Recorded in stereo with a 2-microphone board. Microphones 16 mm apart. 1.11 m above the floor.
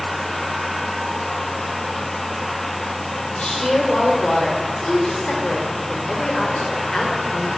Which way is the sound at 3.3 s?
80° left.